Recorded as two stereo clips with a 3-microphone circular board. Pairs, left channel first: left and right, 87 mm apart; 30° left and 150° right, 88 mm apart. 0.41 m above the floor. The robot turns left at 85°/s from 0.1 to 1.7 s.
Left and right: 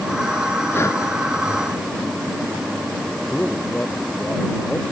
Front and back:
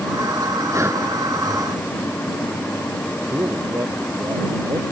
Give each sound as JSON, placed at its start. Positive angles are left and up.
{"t": 0.7, "sound": "breathing", "azimuth_deg": 160}
{"t": 3.3, "sound": "a man speaking", "azimuth_deg": 165}